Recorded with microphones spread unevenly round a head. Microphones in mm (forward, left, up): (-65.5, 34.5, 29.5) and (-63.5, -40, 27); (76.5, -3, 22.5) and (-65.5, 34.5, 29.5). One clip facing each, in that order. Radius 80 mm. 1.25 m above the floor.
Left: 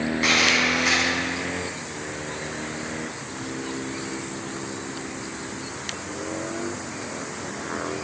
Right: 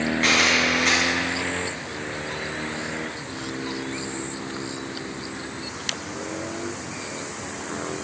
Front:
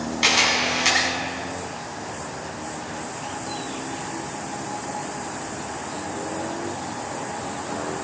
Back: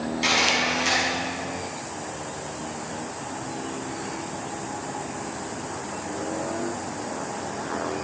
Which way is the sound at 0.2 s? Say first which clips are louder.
Even, front 1 dB; 10° left.